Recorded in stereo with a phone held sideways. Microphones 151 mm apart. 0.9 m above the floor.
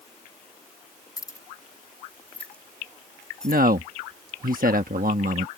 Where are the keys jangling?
25° left (ahead or behind); by 3.6 s 5° left (ahead or behind).